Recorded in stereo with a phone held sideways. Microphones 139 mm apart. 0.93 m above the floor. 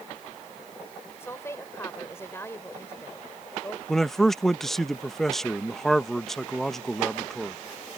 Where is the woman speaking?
20° left (ahead or behind).